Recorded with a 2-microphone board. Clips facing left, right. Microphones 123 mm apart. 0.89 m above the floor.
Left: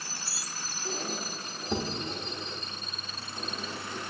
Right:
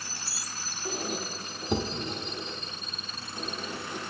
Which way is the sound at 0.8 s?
15° right (ahead or behind).